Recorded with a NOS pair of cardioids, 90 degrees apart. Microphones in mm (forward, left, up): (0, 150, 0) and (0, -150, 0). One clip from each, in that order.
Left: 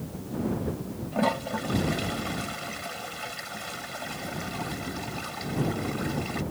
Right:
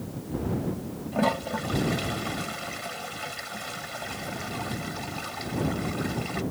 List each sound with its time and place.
1.1 s a toilet flushing: 5° right